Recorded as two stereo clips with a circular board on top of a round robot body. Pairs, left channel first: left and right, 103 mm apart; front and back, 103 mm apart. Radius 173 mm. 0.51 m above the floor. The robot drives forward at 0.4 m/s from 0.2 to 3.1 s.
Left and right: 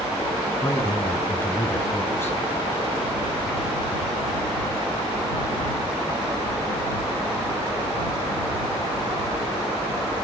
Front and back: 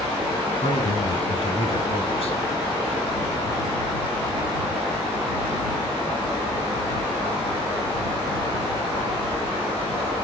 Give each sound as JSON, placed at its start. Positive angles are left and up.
{"t": 0.6, "sound": "a man speaking", "azimuth_deg": 20, "distance_m": 7.0}